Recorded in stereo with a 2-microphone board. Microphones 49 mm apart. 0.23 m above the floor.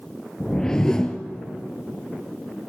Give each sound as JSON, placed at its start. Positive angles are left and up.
{"t": 0.4, "sound": "a whoosh", "side_deg": 15, "distance_m": 1.2}